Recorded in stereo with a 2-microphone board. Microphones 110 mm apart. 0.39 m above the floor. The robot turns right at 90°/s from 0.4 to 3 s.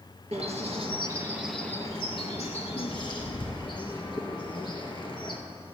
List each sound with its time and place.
0.3 s a bird: 80° right, 2.0 m; by 5.4 s 45° left (ahead or behind), 2.0 m